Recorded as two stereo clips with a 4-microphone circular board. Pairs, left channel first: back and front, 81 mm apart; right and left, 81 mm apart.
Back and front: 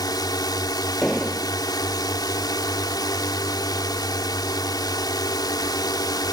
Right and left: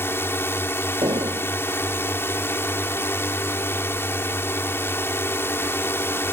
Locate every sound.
0.0 s a drone: 150° right
1.0 s an explosion: 95° left